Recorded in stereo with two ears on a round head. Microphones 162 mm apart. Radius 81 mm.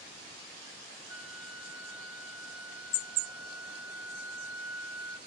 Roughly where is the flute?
Right.